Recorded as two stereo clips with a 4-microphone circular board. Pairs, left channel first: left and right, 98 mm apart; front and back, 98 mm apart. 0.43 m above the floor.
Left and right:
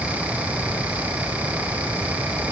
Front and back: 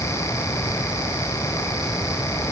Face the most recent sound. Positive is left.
No sound to turn to.